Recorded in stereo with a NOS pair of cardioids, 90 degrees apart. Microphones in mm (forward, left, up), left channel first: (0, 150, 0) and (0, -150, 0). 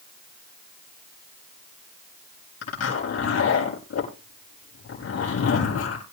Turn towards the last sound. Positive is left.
turn(degrees=55)